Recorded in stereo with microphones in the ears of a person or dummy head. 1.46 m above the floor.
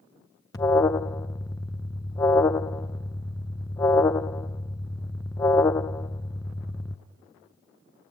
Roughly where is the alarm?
Centre.